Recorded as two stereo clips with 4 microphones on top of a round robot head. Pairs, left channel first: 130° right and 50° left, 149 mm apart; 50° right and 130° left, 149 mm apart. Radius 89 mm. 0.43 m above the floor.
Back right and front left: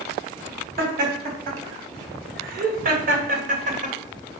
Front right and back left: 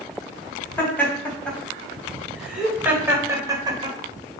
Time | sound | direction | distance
0.8 | laughter | 30° left | 4 m